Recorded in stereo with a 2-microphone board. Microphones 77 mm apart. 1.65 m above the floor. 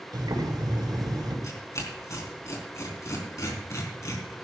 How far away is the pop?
I don't hear a pop.